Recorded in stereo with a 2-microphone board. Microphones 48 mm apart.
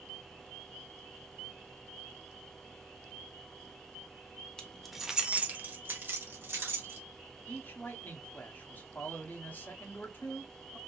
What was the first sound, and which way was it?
Keys jangling, 20° left (ahead or behind).